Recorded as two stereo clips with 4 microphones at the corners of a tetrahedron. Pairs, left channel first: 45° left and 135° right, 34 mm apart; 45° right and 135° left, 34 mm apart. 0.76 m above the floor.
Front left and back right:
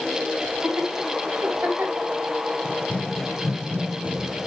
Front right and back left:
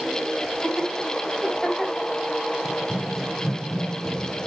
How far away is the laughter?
About 4 m.